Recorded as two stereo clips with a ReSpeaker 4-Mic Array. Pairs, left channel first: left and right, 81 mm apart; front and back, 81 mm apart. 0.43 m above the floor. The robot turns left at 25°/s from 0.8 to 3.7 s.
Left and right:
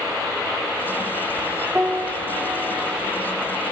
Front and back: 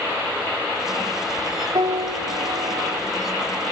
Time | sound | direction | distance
1.8 | a piano | 160° right | 1.2 m